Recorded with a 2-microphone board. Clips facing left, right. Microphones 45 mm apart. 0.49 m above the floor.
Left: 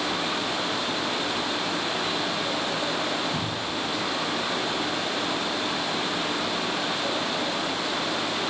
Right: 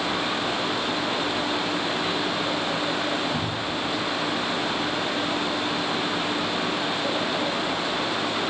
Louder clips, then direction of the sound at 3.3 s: Right 2 dB; 10° left (ahead or behind).